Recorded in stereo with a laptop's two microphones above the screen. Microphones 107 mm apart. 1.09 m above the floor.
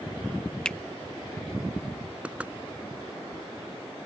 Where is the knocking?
10° right (ahead or behind).